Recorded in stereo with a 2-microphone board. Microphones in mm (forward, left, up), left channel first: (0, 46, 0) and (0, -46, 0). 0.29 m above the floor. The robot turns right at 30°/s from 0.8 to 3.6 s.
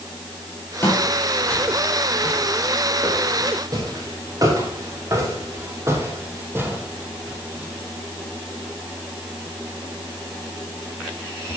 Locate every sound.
0.8 s footsteps: 25° left (ahead or behind), 6.5 m; by 7.8 s 15° right (ahead or behind), 5 m